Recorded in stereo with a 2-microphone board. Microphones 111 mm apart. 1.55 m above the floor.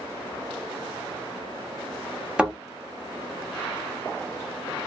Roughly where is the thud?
Centre.